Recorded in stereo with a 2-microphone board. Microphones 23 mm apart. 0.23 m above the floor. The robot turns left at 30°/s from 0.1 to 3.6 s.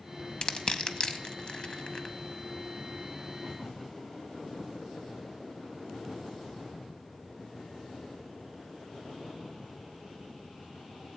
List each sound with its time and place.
0.4 s crushing: 40° left (ahead or behind), 0.6 m; by 2.1 s 35° left (ahead or behind), 0.6 m